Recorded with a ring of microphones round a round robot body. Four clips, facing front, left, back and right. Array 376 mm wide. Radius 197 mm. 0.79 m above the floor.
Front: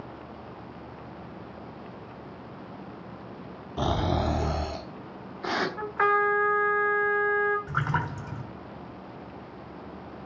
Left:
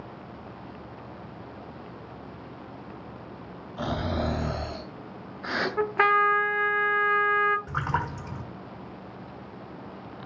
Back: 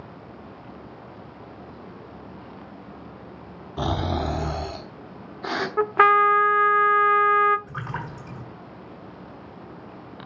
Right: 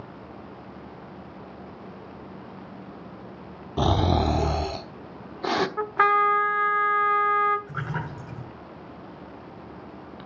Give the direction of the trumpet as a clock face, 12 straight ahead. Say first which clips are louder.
Even, back 9 dB; 6 o'clock.